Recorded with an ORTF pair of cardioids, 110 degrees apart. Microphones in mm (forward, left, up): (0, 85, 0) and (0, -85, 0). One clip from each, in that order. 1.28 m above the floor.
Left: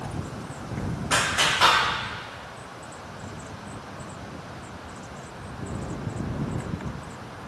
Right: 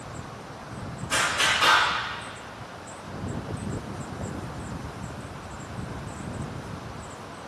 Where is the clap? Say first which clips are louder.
Left 1 dB; 60° left, 1.7 m.